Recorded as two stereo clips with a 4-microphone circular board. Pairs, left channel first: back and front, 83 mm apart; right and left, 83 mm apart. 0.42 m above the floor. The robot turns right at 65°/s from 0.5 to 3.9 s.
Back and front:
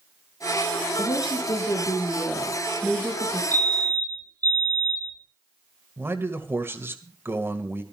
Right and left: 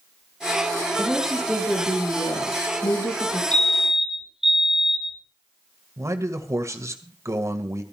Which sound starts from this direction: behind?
A woman speaking, at 1.0 s.